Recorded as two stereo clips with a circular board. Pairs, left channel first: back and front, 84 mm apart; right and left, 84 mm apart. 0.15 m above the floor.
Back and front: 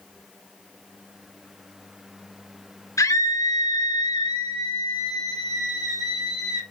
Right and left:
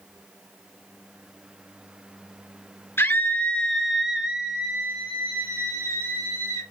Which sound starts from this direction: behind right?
A scream, at 3.0 s.